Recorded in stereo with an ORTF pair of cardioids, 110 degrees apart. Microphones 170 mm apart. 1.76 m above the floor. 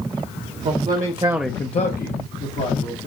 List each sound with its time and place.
0.7 s a man speaking: 60° right, 1.2 m; by 3.1 s 75° left, 2.5 m